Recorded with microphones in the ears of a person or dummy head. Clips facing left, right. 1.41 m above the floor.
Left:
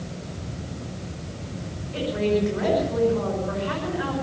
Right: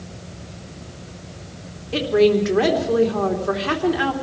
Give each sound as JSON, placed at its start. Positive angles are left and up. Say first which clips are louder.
{"t": 1.9, "sound": "a woman speaking", "louder": "right 7 dB", "side_deg": -85, "distance_m": 3.5}